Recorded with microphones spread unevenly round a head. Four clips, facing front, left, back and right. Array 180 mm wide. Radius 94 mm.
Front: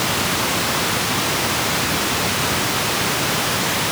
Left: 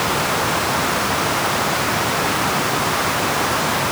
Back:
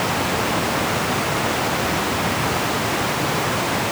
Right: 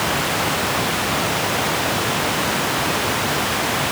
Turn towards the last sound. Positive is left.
No sound to turn to.